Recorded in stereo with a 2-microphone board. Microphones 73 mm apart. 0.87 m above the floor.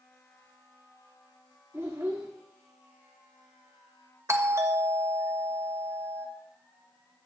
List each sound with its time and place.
1.7 s a child speaking: 35° right (ahead or behind), 1.5 m
4.3 s a doorbell: 40° right (ahead or behind), 1.8 m